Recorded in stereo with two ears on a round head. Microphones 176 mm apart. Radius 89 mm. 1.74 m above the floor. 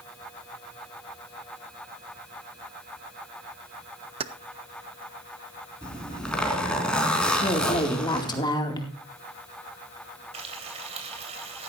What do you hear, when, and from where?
4.2 s keys jangling: 30° right (ahead or behind), 0.7 m
5.8 s a zipper: 5° left (ahead or behind), 3.5 m
7.4 s a woman speaking: 20° left (ahead or behind), 2.5 m
10.3 s frying: 35° right (ahead or behind), 3 m